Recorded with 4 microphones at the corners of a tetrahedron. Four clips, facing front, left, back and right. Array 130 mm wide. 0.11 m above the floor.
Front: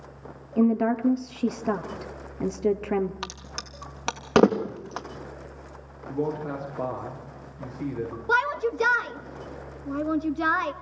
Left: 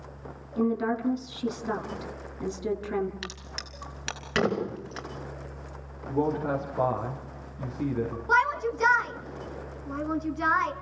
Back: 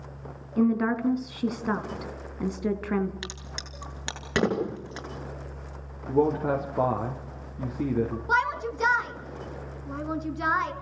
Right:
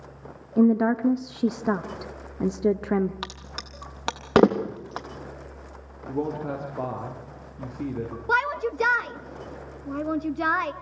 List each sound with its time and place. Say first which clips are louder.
0.6 s a woman speaking: right 7 dB, front 2 dB; 80° right, 1.8 m
3.2 s a crack: right 3 dB, front 3 dB; 60° right, 3.5 m
6.1 s a man speaking: left 2 dB, back 5 dB; 165° right, 5.5 m
8.3 s a shout: even, front 4 dB; 35° right, 1.3 m